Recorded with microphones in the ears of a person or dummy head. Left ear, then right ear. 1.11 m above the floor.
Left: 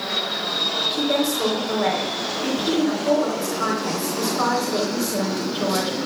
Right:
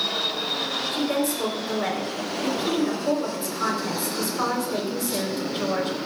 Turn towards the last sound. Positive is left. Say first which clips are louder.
# left 3 dB
turn(degrees=0)  # may be behind; listen again after turning